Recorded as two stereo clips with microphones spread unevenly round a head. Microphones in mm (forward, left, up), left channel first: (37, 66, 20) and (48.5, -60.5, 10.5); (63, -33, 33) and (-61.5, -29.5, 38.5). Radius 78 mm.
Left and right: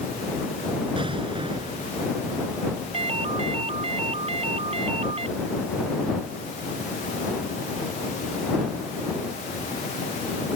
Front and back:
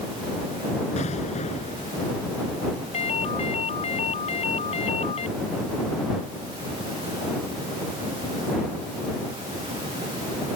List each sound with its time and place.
1.0 s an explosion: 35° right
2.9 s a ringtone: 40° right